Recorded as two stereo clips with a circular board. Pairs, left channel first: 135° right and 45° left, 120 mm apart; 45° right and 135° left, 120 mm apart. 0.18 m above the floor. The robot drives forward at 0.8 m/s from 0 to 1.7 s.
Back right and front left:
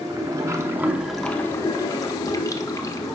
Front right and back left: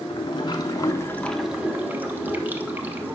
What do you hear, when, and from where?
0.0 s running water: 5° right, 1.2 m; by 3.1 s 165° right, 0.7 m